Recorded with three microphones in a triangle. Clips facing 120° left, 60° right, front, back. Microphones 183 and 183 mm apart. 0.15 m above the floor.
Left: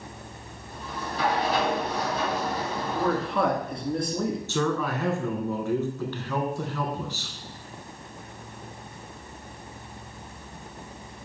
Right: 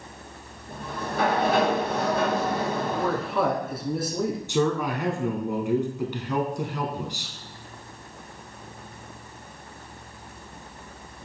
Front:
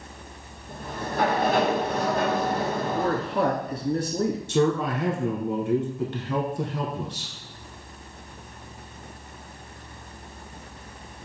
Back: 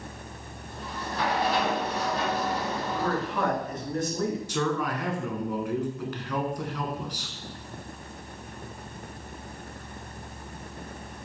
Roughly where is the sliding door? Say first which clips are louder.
Right 3 dB, front 4 dB; ahead right.